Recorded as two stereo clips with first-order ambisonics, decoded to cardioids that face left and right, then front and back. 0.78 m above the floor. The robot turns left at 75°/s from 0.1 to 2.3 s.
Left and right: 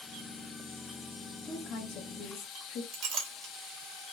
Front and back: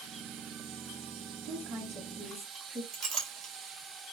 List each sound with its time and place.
1.4 s a woman speaking: 155° left, 1.1 m; by 2.8 s 90° left, 1.1 m
2.9 s a clink: 135° right, 1.3 m